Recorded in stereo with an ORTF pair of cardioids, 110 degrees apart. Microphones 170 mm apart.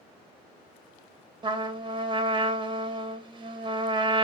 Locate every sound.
1.4 s a trumpet: 30° right, 0.9 m